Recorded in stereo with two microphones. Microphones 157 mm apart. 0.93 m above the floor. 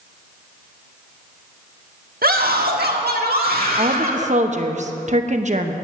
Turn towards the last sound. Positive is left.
turn(degrees=-50)  # may be behind; listen again after turning